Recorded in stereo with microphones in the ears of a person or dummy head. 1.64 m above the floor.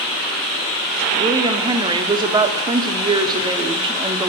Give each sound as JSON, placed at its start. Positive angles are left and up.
{"t": 1.2, "sound": "a woman speaking", "side_deg": -20, "distance_m": 0.7}